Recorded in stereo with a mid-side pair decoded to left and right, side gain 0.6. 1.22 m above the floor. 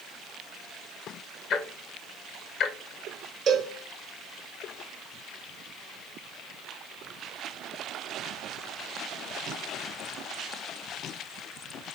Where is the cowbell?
45° right, 0.9 m.